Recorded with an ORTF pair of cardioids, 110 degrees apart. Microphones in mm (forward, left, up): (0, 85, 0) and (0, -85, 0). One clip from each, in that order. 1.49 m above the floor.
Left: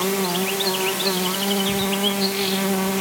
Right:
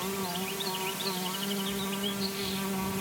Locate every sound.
0.0 s an insect: 60° left